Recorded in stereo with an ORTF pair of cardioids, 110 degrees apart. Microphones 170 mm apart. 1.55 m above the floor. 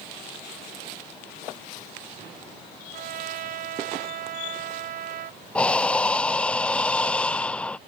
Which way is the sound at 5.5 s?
5° left.